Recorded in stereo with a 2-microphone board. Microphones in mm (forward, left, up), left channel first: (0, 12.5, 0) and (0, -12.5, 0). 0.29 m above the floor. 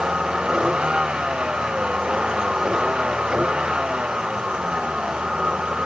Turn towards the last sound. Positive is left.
turn(degrees=-35)  # may be behind; listen again after turning